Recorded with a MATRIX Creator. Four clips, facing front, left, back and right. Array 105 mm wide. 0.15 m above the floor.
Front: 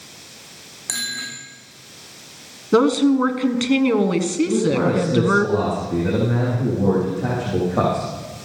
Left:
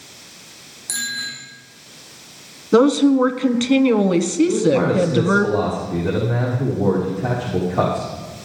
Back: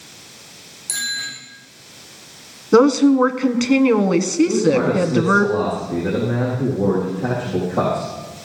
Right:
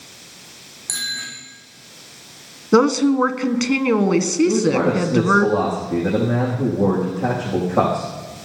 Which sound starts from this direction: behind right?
A woman speaking, at 2.7 s.